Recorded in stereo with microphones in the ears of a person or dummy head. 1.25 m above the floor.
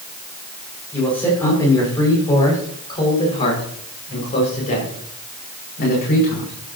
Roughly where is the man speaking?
Centre.